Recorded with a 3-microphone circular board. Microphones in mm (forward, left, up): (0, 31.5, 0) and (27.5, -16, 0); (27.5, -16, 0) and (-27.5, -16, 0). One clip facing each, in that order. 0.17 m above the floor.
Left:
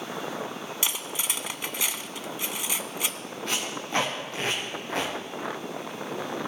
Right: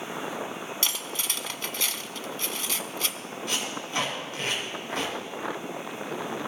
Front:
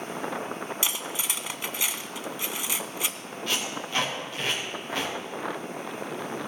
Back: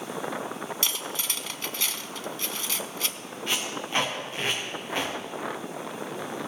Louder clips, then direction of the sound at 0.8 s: Left 1 dB, even; 60° left.